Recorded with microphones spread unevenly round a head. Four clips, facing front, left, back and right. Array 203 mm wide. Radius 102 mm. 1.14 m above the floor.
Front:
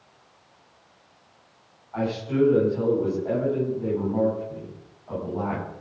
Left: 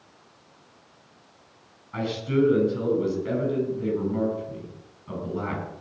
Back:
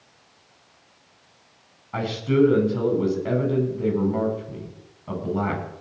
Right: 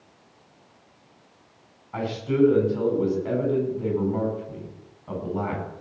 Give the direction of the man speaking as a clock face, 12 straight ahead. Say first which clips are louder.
Right 1 dB, back 3 dB; 6 o'clock.